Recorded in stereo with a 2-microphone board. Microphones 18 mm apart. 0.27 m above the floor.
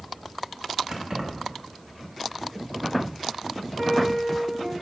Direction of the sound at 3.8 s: 40° right (ahead or behind).